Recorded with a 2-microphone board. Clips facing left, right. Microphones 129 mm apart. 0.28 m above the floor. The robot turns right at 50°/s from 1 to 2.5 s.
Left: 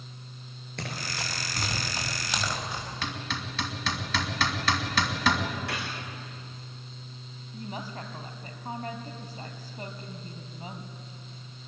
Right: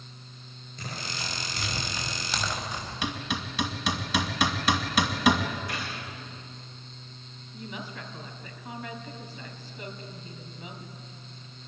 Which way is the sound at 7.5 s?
40° left (ahead or behind).